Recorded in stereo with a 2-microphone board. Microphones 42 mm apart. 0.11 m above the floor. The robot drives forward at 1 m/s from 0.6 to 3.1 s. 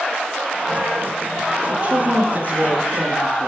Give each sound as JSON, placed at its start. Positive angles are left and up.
{"t": 1.7, "sound": "a woman speaking", "side_deg": -35, "distance_m": 1.7}